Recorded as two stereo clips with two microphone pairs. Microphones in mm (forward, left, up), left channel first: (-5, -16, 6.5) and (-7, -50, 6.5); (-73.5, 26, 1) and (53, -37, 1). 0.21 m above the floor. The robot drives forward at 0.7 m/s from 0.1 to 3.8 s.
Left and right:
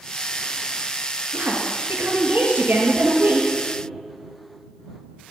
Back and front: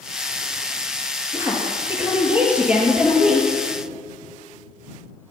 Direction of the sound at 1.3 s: 95° right.